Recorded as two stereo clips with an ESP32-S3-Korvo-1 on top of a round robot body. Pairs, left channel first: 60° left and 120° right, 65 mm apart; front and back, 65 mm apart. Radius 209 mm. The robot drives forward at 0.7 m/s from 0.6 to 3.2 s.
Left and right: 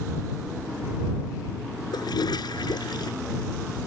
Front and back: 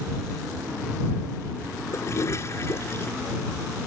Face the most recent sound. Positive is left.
turn(degrees=55)